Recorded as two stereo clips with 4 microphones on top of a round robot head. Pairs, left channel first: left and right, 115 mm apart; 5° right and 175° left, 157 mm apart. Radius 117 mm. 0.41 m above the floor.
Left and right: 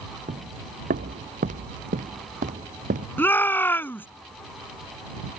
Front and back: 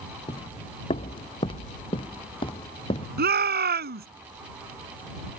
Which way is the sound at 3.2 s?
160° left.